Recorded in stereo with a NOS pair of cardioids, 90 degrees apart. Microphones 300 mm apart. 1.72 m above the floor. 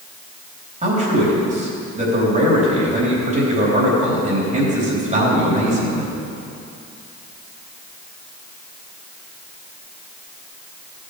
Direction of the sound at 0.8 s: 25° right.